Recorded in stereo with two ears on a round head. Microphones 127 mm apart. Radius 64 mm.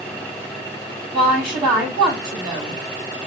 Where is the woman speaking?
20° right (ahead or behind), 4 m.